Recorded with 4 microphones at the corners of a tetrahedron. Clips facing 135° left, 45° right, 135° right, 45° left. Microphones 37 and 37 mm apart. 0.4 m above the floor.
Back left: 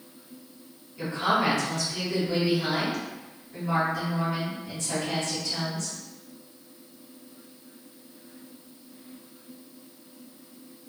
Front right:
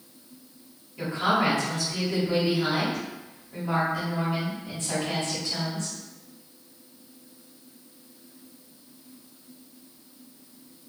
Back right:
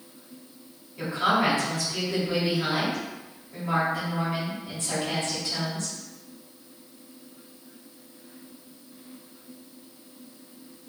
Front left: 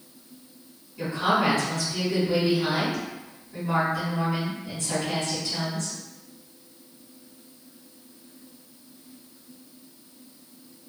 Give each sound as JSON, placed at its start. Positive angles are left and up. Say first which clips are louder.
{"t": 1.0, "sound": "a woman speaking", "louder": "front right 1 dB, even", "azimuth_deg": -100, "distance_m": 1.6}